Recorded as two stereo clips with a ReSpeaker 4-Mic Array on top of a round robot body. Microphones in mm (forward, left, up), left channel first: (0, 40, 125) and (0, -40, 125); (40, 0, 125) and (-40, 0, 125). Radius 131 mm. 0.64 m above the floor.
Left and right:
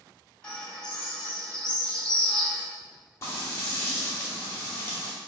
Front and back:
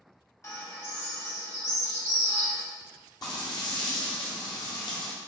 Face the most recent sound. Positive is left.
turn(degrees=35)